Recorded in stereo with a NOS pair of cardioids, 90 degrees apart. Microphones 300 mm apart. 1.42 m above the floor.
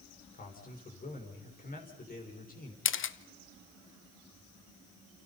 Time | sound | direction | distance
0.3 | a man speaking | 30° left | 5.5 m
2.9 | a camera shutter | 40° left | 1.0 m